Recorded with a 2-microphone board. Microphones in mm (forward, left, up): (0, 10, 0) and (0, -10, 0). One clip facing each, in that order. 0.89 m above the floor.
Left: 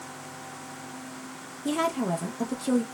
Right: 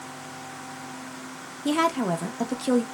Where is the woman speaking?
35° right (ahead or behind), 0.7 m.